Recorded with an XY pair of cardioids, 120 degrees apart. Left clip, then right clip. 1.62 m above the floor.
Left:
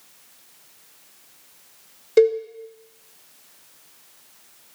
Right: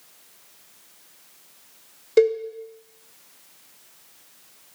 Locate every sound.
2.2 s a cowbell: 5° left, 1.4 m